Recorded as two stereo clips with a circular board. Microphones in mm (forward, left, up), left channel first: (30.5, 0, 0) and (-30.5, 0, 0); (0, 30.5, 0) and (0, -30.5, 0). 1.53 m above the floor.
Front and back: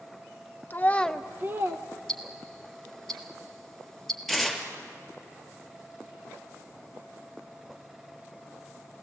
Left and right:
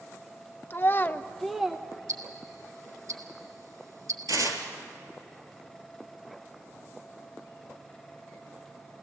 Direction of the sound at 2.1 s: 85° right.